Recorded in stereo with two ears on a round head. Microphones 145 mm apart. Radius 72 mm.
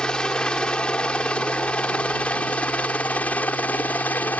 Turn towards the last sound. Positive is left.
turn(degrees=10)  # may be behind; listen again after turning